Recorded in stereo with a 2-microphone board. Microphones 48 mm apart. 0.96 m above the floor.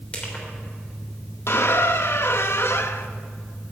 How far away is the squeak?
About 0.6 m.